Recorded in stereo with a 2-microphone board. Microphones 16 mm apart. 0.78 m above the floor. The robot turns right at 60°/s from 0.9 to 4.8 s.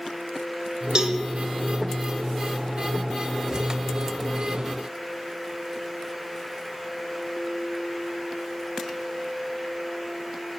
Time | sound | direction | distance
0.9 | a cowbell | 50° right (ahead or behind) | 0.8 m